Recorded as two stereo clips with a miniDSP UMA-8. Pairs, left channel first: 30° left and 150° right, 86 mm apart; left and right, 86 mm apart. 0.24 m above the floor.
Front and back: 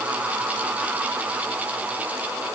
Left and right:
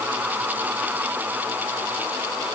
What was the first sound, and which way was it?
Only background noise.